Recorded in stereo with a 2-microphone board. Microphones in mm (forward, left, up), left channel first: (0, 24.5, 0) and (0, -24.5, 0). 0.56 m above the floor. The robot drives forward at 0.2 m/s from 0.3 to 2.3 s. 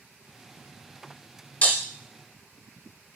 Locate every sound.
1.6 s breaking glass: 35° left (ahead or behind), 0.8 m